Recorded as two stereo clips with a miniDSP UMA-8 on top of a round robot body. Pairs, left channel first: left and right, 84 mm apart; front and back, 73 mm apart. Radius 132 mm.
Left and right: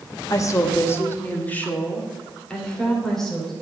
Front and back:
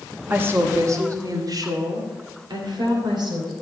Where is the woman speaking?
120° left, 1.4 m; by 3.5 s 175° left, 3 m.